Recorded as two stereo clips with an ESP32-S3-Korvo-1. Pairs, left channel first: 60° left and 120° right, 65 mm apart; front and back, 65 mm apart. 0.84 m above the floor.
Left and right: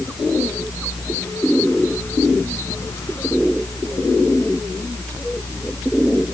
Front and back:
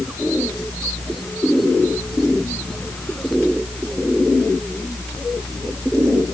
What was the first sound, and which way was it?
Only background noise.